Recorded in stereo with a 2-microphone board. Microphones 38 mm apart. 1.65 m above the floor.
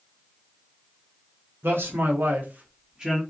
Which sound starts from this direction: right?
A man speaking, at 1.6 s.